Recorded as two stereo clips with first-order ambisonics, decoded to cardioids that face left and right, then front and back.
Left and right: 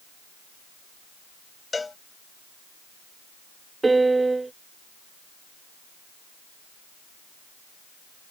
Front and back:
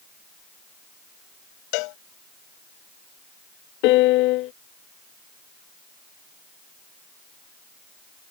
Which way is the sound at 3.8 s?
10° right.